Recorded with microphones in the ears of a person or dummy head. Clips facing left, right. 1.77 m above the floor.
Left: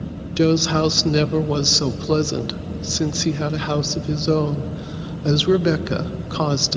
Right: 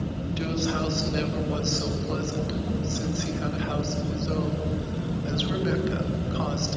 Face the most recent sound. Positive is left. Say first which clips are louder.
# left 12 dB
turn(degrees=75)  # may be behind; listen again after turning